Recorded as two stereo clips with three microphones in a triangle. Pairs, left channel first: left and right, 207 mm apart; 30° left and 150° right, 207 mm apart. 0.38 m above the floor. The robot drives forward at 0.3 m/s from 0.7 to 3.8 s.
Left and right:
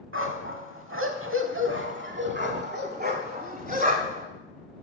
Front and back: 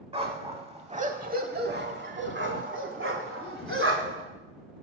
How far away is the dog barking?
About 0.7 m.